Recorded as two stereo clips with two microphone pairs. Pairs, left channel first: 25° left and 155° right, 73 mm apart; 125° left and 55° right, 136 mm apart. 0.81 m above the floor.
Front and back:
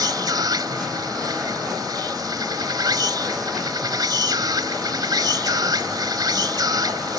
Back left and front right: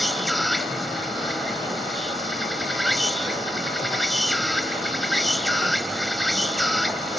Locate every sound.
0.0 s an insect: 145° right